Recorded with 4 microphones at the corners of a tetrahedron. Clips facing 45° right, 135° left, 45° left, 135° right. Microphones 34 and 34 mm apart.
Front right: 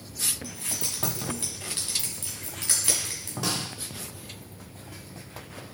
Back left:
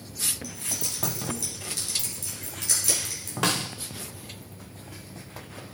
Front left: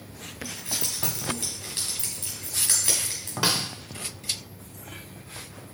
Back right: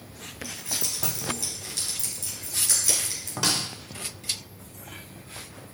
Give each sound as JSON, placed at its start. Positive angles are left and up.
{"t": 0.4, "sound": "keys jangling", "azimuth_deg": -5, "distance_m": 3.0}
{"t": 3.4, "sound": "a snare drum", "azimuth_deg": 115, "distance_m": 0.7}